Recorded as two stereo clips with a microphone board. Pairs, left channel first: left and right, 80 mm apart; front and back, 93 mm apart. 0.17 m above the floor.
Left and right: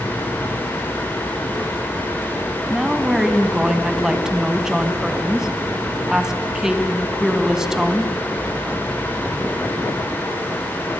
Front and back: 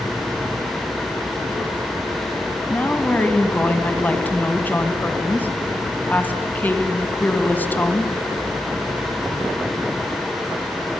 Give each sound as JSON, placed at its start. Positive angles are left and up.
{"t": 2.7, "sound": "a woman speaking", "azimuth_deg": -20, "distance_m": 1.0}